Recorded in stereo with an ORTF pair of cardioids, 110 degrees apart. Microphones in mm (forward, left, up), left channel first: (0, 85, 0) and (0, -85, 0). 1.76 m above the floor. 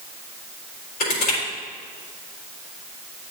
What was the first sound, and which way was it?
Crushing, 65° left.